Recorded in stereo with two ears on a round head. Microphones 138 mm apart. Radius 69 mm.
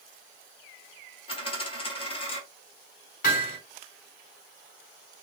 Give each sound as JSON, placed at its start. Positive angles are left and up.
{"t": 1.3, "sound": "a dropped coin", "side_deg": 35, "distance_m": 1.3}
{"t": 3.2, "sound": "hammering", "side_deg": 60, "distance_m": 3.0}